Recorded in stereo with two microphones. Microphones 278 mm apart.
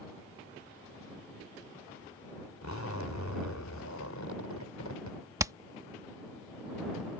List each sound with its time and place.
2.6 s a zipper: 75° left (ahead or behind)
5.4 s hammering: 10° right (ahead or behind)